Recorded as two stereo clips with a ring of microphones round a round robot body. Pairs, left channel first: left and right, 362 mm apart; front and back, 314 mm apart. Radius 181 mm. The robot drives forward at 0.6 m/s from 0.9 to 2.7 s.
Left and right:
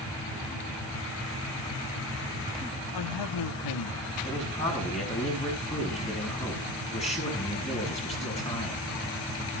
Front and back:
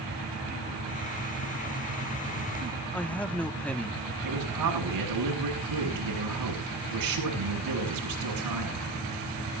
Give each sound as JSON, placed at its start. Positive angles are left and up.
{"t": 2.9, "sound": "a man speaking", "azimuth_deg": 85, "distance_m": 1.2}
{"t": 4.2, "sound": "a man speaking", "azimuth_deg": 165, "distance_m": 6.5}